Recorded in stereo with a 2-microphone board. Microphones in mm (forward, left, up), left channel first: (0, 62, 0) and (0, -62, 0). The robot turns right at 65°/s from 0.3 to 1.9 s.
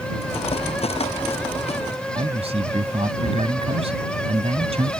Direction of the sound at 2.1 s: 55° right (ahead or behind).